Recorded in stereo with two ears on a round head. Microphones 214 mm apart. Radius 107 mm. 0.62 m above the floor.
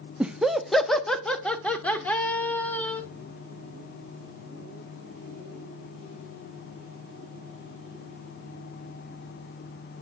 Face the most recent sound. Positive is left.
turn(degrees=10)  # may be behind; listen again after turning